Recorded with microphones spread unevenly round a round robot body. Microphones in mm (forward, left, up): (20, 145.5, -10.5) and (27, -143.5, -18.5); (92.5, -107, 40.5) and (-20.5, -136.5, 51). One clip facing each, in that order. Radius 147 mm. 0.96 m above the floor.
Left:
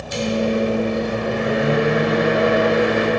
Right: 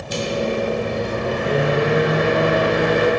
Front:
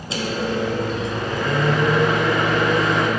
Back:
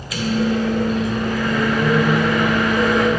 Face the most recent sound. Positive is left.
turn(degrees=-45)